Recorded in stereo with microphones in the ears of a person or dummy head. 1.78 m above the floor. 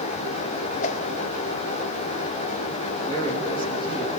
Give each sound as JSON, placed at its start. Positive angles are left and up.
{"t": 0.8, "sound": "a whoosh", "side_deg": 35, "distance_m": 1.4}
{"t": 3.1, "sound": "a man speaking", "side_deg": 25, "distance_m": 3.5}